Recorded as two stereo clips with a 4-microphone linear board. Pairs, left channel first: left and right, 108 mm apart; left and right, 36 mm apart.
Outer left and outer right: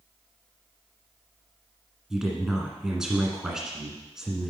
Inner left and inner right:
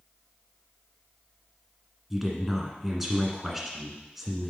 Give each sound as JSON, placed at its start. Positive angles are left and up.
{"t": 2.1, "sound": "a woman speaking", "side_deg": -5, "distance_m": 1.6}